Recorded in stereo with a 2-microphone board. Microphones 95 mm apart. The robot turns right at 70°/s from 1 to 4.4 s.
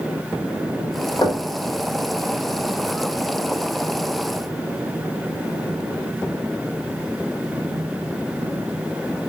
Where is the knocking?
45° left (ahead or behind), 1.3 m; by 1.4 s 30° left (ahead or behind), 1.3 m.